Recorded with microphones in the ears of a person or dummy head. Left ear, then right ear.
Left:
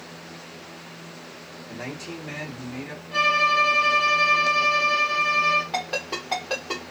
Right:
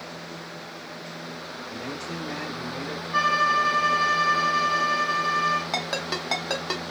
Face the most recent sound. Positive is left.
turn(degrees=-60)  # may be behind; listen again after turning